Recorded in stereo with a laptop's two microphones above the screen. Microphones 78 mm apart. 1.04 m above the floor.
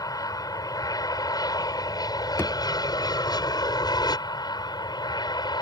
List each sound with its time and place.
0.0 s an aircraft: 50° left (ahead or behind); by 5.6 s 65° left (ahead or behind)
2.4 s a thud: 30° left (ahead or behind)